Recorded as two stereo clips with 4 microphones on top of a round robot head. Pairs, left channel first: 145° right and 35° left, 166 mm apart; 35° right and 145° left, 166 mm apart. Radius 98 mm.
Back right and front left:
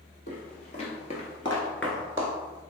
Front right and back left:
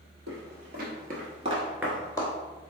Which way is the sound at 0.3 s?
175° left.